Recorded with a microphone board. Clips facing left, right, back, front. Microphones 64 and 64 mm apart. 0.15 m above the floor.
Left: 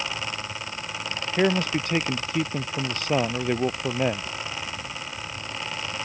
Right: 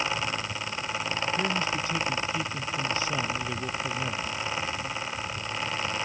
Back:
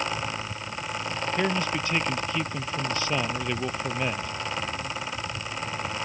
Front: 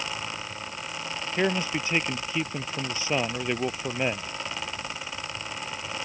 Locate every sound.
1.4 s a man speaking: 70° left